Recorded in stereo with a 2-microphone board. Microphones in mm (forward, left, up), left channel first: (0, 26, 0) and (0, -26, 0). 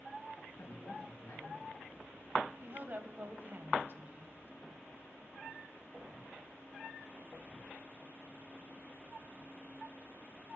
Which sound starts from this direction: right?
A woman speaking, at 2.6 s.